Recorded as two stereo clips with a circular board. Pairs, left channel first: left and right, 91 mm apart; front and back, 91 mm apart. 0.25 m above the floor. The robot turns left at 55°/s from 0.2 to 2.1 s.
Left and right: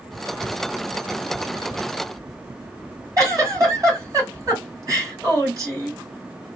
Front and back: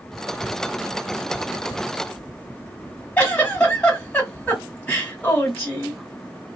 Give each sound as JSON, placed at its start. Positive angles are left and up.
{"t": 3.2, "sound": "a giggle", "azimuth_deg": -70, "distance_m": 2.0}